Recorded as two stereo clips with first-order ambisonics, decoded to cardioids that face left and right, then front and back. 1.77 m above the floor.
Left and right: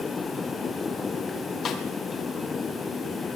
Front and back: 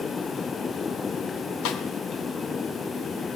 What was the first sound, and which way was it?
A snare drum, 30° left.